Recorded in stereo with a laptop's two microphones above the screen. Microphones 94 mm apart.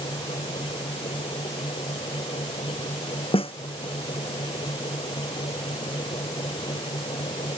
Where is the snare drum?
80° left.